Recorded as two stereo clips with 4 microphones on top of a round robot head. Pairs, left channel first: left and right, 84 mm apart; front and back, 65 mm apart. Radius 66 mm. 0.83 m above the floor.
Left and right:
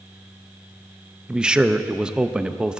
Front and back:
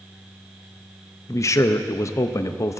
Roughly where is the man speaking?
Ahead.